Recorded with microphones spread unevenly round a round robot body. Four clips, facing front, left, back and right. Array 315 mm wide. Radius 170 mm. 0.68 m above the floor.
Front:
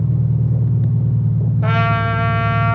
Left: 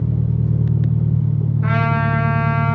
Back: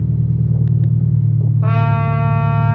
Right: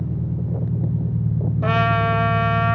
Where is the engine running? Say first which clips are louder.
Left 5 dB, even; 100° left, 2.5 m.